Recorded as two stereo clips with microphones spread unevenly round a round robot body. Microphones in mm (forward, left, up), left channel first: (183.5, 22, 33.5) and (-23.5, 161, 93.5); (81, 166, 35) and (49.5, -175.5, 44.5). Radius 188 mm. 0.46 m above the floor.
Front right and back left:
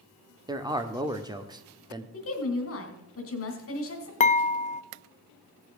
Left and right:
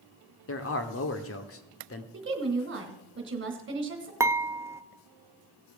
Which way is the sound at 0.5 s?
60° left.